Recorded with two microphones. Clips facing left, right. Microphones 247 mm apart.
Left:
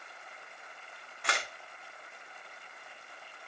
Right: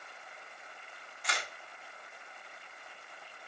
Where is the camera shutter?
70° left (ahead or behind), 2 m.